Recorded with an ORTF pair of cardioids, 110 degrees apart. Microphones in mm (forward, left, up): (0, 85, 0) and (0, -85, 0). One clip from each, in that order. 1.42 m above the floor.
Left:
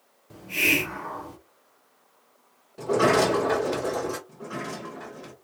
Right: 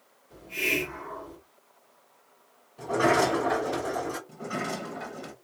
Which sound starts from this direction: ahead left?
A sliding door, at 2.8 s.